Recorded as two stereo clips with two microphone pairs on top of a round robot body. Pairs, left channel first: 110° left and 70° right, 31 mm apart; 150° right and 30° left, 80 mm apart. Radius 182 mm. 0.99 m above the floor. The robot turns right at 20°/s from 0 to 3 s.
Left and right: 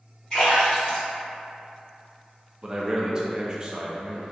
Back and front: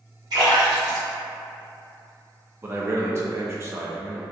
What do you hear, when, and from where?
0.3 s a splash: 50° left, 0.6 m; by 2.1 s 85° left, 0.6 m
2.6 s a man speaking: 25° right, 0.6 m; by 4.2 s 20° right, 0.6 m